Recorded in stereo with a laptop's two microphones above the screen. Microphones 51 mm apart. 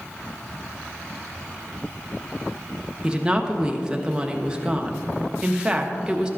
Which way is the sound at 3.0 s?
15° right (ahead or behind).